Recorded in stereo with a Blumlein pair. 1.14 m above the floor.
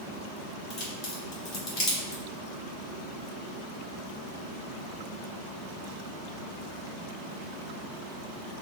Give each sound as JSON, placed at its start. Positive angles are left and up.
{"t": 0.7, "sound": "a crack", "azimuth_deg": 35, "distance_m": 1.5}